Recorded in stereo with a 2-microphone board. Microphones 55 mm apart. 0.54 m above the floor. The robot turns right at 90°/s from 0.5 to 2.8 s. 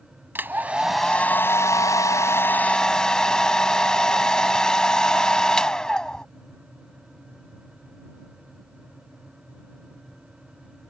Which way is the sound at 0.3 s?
40° right.